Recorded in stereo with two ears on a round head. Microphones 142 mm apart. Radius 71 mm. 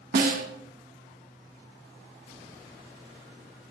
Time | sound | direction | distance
0.1 | a snare drum | 55° right (ahead or behind) | 0.9 m